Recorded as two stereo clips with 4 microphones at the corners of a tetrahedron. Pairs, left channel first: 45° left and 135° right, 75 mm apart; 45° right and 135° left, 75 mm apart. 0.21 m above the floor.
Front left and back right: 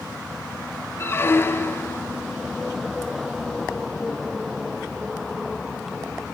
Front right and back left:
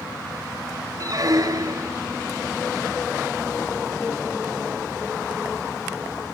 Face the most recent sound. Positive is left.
turn(degrees=100)